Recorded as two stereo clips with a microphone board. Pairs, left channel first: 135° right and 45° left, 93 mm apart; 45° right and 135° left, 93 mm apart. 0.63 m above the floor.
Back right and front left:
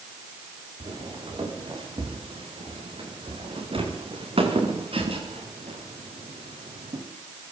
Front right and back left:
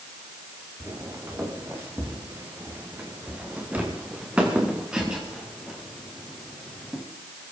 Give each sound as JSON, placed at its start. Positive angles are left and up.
{"t": 0.8, "sound": "footsteps", "azimuth_deg": 75, "distance_m": 7.0}